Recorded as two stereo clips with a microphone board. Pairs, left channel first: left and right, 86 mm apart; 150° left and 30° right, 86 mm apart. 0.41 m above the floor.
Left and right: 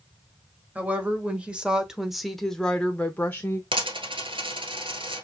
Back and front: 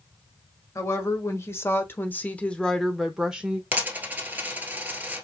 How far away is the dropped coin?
About 1.2 m.